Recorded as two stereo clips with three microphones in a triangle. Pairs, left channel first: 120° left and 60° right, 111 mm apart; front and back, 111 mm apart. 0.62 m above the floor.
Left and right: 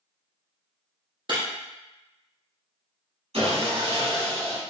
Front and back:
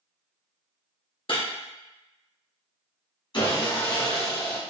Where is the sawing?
40° right, 1.4 m.